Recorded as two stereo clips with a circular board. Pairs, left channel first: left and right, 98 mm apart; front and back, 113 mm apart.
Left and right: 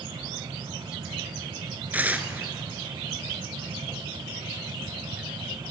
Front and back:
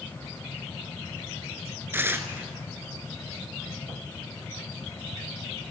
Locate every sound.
1.9 s tearing paper: 140° right, 0.7 m